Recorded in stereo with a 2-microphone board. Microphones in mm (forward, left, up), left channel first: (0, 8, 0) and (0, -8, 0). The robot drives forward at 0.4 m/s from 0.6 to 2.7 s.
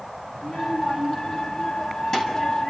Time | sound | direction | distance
0.3 | a child speaking | 45° left (ahead or behind) | 5.5 m